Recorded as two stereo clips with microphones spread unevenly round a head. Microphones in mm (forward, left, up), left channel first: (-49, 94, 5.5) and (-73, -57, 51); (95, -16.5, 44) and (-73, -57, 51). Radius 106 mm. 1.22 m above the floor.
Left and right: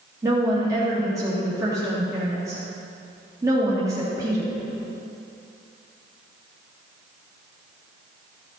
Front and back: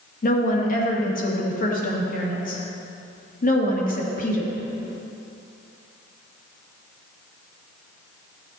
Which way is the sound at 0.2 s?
25° right.